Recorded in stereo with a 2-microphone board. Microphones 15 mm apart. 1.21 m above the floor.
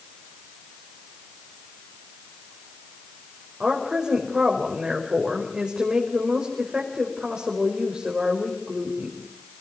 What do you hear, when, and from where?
3.6 s a woman speaking: 55° right (ahead or behind), 5 m